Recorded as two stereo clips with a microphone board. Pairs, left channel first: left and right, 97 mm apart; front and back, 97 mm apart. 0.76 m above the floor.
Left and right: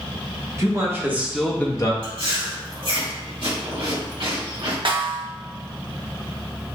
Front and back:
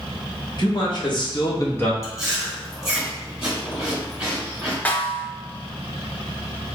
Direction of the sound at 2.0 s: 95° right.